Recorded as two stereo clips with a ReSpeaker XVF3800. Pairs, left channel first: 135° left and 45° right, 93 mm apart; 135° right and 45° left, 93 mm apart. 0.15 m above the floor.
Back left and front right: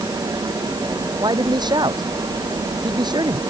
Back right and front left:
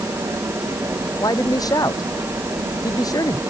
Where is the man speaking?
85° right.